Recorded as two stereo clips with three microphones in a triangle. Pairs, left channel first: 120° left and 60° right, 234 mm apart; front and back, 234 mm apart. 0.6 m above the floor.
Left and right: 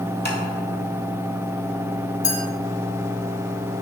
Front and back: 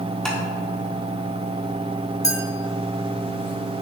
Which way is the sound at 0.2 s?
85° left.